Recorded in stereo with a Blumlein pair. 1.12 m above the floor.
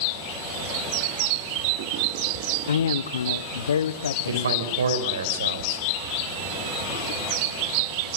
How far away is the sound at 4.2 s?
About 4 m.